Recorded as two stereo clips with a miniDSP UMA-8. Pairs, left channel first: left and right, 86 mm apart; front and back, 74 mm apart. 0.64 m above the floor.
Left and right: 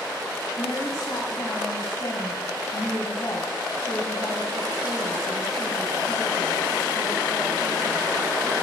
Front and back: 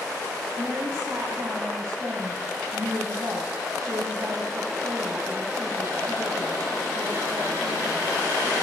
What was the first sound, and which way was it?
A woman speaking, 130° left.